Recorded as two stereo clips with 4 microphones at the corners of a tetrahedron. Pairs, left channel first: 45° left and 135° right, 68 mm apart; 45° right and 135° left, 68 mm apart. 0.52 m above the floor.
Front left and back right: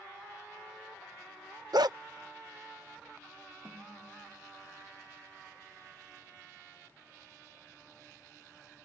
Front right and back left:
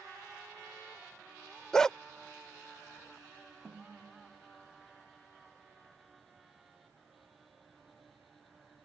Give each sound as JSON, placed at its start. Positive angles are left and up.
{"t": 1.7, "sound": "a dog barking", "azimuth_deg": -125}
{"t": 3.6, "sound": "a snare drum", "azimuth_deg": -170}